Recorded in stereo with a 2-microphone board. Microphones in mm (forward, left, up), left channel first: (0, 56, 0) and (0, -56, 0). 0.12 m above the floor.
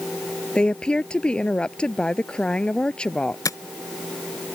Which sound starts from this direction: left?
Tapping, at 3.5 s.